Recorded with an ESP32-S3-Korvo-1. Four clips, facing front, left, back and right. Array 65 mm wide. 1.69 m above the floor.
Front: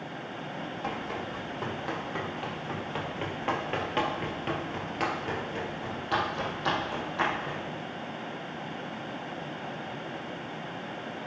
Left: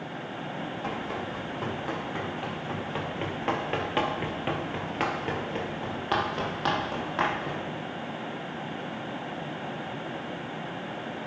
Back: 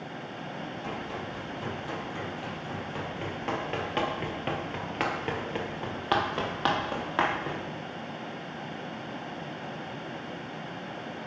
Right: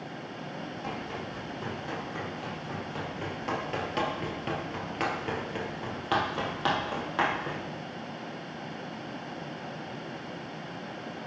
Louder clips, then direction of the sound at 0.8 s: Left 3 dB, front 3 dB; 35° left.